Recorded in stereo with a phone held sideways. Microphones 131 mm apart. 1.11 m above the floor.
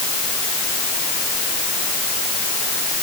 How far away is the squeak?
No squeak in this recording.